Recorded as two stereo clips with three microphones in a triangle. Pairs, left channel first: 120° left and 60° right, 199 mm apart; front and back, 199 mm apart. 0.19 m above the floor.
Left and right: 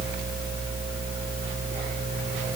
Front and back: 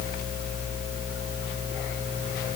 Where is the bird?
No bird in this recording.